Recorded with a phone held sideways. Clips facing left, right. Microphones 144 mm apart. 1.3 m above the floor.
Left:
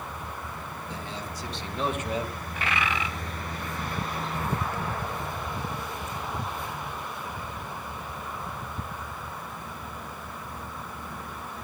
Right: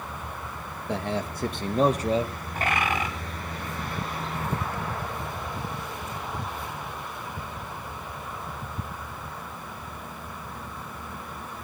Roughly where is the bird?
Right.